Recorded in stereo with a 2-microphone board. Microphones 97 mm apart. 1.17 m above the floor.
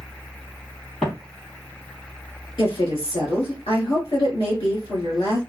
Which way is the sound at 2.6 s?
65° left (ahead or behind).